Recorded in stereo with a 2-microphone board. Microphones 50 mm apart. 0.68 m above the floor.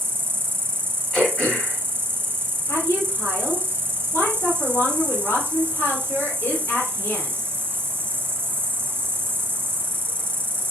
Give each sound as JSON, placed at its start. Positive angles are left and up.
{"t": 0.0, "sound": "an insect", "side_deg": -50, "distance_m": 0.9}
{"t": 1.1, "sound": "throat clearing", "side_deg": 25, "distance_m": 3.0}
{"t": 2.7, "sound": "a woman speaking", "side_deg": 65, "distance_m": 2.5}